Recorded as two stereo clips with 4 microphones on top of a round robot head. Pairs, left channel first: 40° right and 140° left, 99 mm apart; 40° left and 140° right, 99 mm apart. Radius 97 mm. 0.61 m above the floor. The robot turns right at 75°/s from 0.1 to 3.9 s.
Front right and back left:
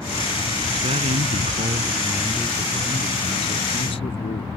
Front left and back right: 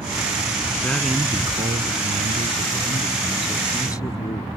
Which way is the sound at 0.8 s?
110° left.